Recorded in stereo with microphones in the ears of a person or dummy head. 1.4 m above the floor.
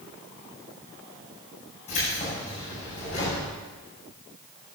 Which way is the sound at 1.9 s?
35° left (ahead or behind).